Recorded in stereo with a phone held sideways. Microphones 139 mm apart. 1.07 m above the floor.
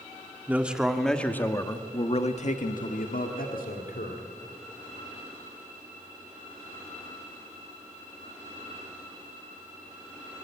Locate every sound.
0.5 s a man speaking: 10° right (ahead or behind), 2 m; by 4.2 s 85° left, 3 m